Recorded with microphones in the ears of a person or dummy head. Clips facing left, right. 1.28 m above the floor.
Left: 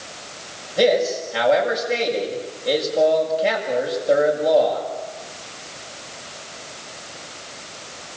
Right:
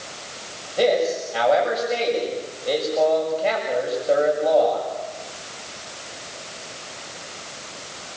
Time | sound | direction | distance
0.8 | a man speaking | 15° left (ahead or behind) | 7.5 m